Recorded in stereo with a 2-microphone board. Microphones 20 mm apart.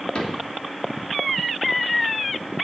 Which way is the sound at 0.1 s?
65° left (ahead or behind).